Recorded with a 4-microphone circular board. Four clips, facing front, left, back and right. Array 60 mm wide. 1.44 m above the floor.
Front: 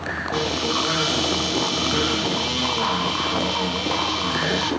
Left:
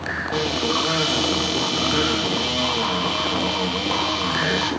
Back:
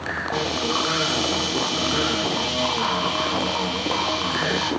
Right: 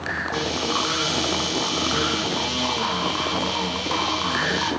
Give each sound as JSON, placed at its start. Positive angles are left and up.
{"t": 0.3, "sound": "a cupboard door", "azimuth_deg": 90, "distance_m": 0.6}